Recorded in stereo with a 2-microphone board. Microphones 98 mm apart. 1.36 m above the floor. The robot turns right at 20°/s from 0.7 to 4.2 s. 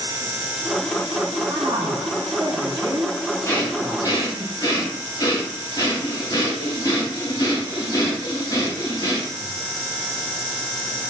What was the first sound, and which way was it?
A man speaking, 75° right.